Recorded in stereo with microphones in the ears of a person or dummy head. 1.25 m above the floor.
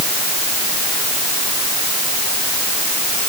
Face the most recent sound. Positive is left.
No sound to turn to.